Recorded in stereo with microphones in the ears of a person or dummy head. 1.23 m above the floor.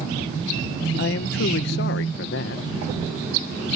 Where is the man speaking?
60° left (ahead or behind).